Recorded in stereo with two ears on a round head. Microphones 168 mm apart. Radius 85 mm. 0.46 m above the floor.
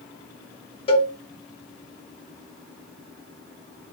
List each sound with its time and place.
0.9 s a cowbell: 30° left (ahead or behind), 0.5 m